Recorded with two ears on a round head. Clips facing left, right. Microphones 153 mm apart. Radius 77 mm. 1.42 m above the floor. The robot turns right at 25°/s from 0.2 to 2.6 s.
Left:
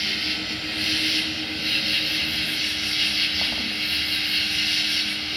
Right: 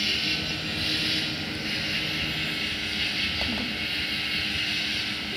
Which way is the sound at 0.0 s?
15° left.